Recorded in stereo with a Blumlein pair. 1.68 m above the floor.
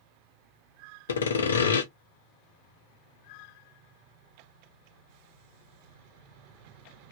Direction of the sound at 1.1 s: 65° left.